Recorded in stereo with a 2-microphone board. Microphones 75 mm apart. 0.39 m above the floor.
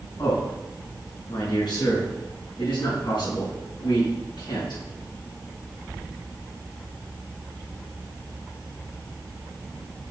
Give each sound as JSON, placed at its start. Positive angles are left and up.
{"t": 0.2, "sound": "a man speaking", "side_deg": 60, "distance_m": 3.5}